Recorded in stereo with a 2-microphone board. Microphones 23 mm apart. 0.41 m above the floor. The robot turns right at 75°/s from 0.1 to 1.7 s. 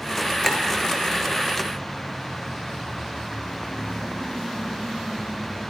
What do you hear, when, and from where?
0.4 s a clink: centre (ahead or behind), 5.5 m; by 0.6 s 15° left (ahead or behind), 5.5 m